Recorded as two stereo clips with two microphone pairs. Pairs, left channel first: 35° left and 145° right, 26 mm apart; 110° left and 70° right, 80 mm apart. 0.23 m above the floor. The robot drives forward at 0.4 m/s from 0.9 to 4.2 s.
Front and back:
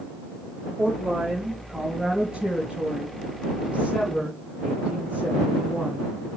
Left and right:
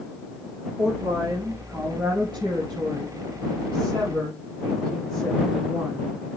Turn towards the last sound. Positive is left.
turn(degrees=-105)